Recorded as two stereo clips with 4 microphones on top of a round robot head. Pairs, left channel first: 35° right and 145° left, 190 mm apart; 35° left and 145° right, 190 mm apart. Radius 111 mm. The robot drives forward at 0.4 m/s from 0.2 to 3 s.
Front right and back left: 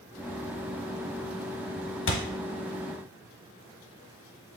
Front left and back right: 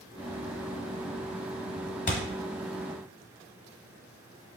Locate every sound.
2.1 s a thud: 15° right, 0.9 m